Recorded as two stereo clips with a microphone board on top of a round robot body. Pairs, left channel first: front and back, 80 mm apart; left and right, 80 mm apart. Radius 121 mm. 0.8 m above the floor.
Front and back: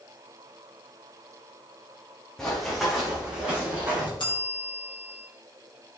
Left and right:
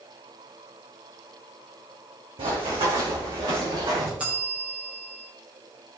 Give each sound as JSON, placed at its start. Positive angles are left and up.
{"t": 2.4, "sound": "running footsteps", "azimuth_deg": -80, "distance_m": 3.0}
{"t": 4.2, "sound": "a bell", "azimuth_deg": -15, "distance_m": 2.5}